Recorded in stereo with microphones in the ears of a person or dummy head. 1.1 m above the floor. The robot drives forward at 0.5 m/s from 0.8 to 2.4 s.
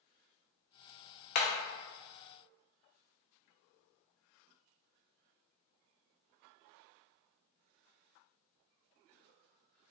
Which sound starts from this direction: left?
Hammering, at 1.4 s.